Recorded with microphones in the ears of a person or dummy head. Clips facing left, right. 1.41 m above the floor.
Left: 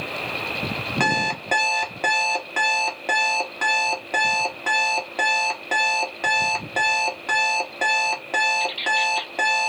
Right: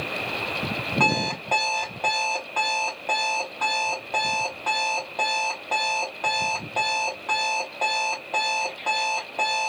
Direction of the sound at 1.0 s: 25° left (ahead or behind).